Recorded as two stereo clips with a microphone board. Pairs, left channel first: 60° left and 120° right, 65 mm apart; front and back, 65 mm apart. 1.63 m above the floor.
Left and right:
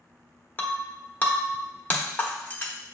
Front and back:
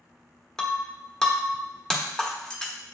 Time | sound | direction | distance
0.6 | breaking glass | 60° left | 0.7 m